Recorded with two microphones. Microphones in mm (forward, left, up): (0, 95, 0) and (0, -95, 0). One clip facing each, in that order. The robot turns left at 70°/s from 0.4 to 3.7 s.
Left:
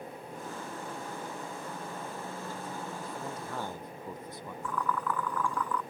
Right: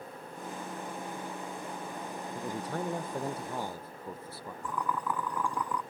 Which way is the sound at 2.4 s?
80° right.